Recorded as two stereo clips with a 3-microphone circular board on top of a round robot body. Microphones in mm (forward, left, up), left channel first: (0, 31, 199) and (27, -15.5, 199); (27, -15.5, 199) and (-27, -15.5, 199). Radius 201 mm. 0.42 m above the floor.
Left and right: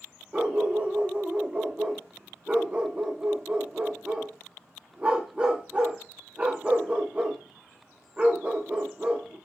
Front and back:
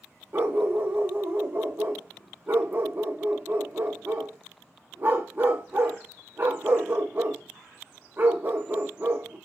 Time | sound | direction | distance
0.3 | a dog barking | 130° right | 1.1 m